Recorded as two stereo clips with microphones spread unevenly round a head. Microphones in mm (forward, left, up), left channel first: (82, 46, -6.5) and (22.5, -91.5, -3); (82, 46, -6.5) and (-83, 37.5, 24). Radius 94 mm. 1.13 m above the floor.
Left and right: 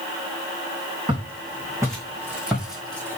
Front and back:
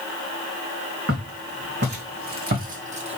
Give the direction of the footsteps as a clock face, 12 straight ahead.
6 o'clock.